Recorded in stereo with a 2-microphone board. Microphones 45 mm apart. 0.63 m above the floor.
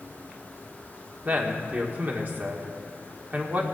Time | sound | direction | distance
1.2 | a man speaking | 40° right (ahead or behind) | 1.9 m